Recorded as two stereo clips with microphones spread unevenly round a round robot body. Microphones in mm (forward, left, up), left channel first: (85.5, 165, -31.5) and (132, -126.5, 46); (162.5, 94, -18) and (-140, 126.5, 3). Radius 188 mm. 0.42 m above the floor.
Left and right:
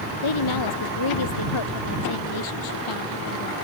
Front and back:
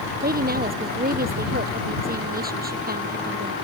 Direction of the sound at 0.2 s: 115° left.